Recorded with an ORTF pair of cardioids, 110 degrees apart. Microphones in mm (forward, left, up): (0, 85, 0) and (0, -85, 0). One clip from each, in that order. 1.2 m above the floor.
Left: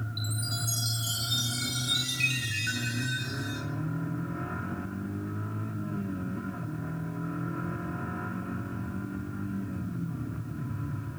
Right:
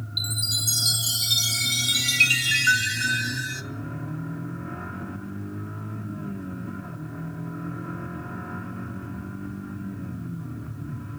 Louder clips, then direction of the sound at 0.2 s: Right 10 dB; 60° right.